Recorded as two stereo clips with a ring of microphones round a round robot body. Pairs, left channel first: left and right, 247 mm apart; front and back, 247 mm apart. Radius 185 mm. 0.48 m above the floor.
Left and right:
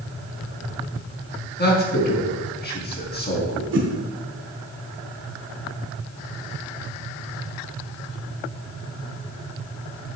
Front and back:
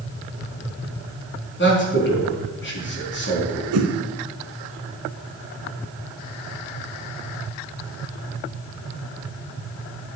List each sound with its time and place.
1.6 s a man speaking: 40° left, 4.5 m
3.7 s a whoosh: 140° right, 0.9 m